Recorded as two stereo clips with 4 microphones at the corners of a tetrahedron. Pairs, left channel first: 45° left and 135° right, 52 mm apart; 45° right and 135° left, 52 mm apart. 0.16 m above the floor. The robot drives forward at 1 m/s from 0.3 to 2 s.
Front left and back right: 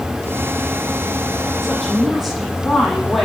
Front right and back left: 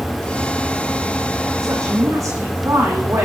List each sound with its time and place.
1.6 s a woman speaking: 130° left, 5.5 m